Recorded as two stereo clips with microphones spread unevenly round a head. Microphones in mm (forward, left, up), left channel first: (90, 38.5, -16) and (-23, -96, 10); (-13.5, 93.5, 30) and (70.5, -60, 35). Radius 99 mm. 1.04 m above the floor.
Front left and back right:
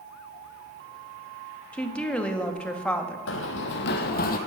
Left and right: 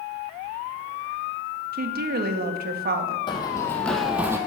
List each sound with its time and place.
1.7 s a woman speaking: 30° right, 2 m
3.3 s running footsteps: 55° left, 2.5 m; by 4.4 s 10° left, 2.0 m